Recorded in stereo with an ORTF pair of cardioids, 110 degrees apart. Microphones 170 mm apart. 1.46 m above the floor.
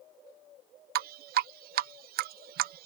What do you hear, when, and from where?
0.9 s dripping: 65° right